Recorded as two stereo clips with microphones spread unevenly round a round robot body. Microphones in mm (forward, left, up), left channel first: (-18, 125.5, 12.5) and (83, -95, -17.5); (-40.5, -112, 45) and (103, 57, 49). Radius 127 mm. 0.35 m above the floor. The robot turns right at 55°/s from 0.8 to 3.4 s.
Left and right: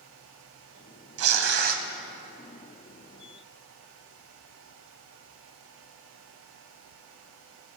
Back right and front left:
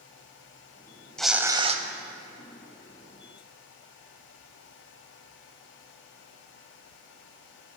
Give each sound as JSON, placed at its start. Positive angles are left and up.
{"t": 1.2, "sound": "tearing paper", "azimuth_deg": -45, "distance_m": 0.8}